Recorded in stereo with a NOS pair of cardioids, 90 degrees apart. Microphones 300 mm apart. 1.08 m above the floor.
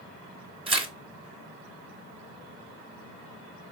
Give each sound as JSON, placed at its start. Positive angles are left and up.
{"t": 0.7, "sound": "tearing paper", "azimuth_deg": -15, "distance_m": 0.7}